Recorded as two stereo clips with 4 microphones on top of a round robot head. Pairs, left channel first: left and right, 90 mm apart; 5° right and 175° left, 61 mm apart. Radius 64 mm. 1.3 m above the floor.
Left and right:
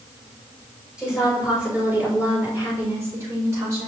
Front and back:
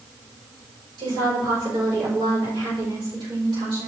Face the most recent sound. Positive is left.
turn(degrees=-145)